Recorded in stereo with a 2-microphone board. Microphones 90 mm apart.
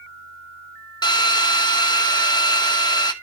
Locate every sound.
1.0 s a drill: 50° left (ahead or behind), 1.0 m